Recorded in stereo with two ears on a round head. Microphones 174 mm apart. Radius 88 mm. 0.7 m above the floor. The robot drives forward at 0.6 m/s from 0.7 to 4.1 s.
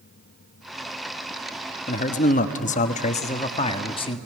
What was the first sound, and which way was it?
A man speaking, 40° left (ahead or behind).